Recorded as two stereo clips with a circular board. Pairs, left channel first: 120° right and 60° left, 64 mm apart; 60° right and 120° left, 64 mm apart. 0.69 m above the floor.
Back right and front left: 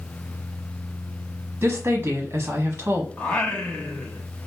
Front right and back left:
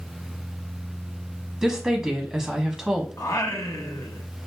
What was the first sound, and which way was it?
A woman speaking, 40° left.